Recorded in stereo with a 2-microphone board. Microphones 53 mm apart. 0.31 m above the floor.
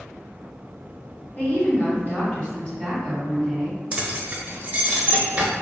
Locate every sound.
1.4 s a woman speaking: 40° left (ahead or behind), 1.7 m; by 3.8 s 5° left (ahead or behind), 2.0 m
3.9 s keys jangling: 25° right (ahead or behind), 0.7 m